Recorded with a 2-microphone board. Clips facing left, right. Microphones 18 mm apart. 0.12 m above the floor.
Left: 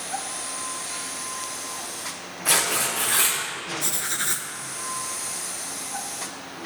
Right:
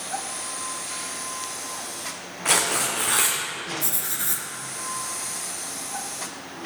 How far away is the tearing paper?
About 3 m.